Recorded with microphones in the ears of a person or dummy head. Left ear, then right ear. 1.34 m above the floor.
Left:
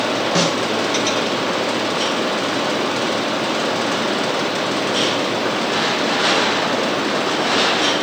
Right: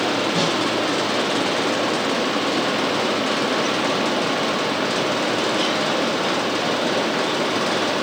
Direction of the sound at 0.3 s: 65° left (ahead or behind).